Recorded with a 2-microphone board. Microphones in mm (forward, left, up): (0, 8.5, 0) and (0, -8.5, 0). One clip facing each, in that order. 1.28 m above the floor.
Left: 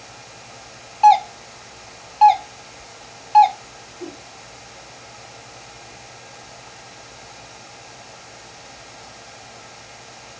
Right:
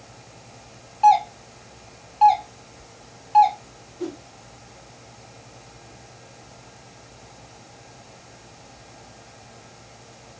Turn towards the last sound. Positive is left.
turn(degrees=-70)  # may be behind; listen again after turning